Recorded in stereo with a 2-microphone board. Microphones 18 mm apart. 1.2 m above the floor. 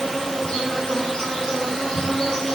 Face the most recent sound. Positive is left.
turn(degrees=45)  # may be behind; listen again after turning